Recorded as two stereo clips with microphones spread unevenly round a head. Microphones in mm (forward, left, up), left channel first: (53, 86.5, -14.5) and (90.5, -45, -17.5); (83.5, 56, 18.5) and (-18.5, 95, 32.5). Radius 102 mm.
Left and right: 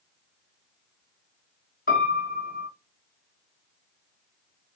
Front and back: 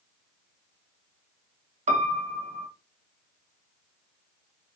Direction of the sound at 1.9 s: 155° left.